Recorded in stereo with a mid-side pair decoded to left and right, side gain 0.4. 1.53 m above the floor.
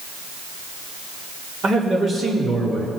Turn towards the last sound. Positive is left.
turn(degrees=-55)